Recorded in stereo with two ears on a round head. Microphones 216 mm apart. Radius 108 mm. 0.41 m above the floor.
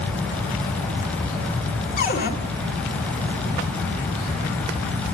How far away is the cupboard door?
About 1.9 m.